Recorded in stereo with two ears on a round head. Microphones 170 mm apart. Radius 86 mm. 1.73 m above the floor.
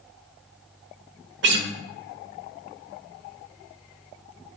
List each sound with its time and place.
1.4 s a guitar: 60° right (ahead or behind), 1.1 m